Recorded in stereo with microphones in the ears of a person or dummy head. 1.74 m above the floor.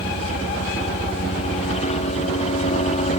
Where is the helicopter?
35° left (ahead or behind).